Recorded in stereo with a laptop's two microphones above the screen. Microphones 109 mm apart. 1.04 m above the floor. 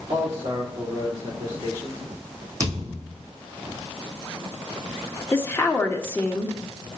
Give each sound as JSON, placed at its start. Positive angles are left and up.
{"t": 0.1, "sound": "a man speaking", "side_deg": -30, "distance_m": 4.0}
{"t": 2.6, "sound": "a thud", "side_deg": -30, "distance_m": 2.5}
{"t": 5.3, "sound": "a woman speaking", "side_deg": 20, "distance_m": 1.5}